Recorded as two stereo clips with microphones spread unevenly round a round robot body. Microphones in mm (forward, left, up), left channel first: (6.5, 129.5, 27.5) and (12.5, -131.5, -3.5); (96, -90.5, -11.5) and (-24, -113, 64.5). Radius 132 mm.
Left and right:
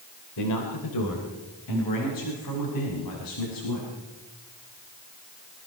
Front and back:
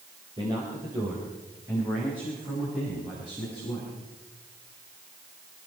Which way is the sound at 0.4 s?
110° left.